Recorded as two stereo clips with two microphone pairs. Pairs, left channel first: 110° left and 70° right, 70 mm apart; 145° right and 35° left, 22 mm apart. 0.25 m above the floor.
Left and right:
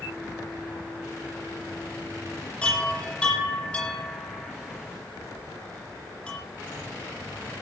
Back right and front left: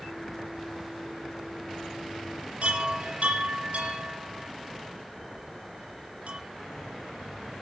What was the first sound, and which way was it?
A chime, 40° left.